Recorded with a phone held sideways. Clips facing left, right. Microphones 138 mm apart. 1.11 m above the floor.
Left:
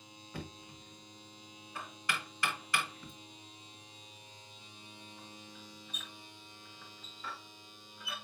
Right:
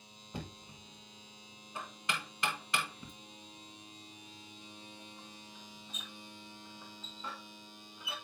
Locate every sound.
0.3 s knocking: 20° right (ahead or behind), 1.6 m